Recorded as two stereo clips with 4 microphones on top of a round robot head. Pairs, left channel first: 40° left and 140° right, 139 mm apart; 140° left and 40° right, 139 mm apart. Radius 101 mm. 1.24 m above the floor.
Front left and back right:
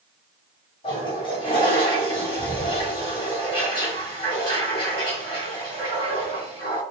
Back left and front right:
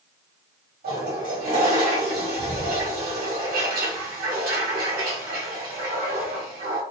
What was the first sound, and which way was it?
A toilet flushing, 15° right.